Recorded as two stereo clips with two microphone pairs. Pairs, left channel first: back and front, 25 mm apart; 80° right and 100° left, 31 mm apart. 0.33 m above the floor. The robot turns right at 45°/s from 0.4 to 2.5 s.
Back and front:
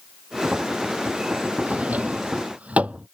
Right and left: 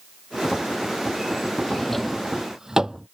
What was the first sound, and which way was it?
A drawer, 15° right.